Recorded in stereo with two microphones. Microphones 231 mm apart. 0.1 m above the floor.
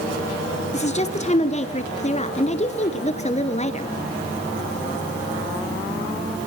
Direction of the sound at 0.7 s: 25° left (ahead or behind).